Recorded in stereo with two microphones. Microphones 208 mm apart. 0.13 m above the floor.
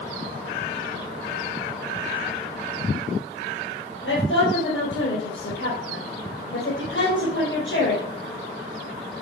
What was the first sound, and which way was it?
A woman speaking, 70° left (ahead or behind).